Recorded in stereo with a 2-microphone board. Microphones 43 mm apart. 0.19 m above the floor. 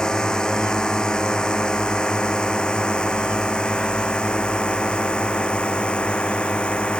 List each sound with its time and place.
0.0 s a drone: 20° left (ahead or behind); by 7.0 s 25° left (ahead or behind)